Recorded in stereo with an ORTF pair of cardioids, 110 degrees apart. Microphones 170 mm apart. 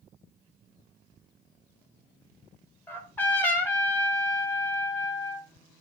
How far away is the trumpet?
About 0.9 m.